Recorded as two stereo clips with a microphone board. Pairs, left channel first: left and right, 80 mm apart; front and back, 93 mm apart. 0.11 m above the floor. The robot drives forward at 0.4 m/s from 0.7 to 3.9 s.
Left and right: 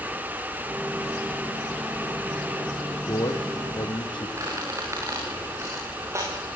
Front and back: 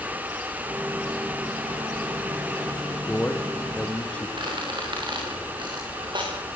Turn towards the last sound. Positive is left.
turn(degrees=-145)